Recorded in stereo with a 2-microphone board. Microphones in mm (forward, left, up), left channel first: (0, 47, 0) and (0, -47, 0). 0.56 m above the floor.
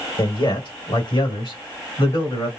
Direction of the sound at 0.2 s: 60° left (ahead or behind).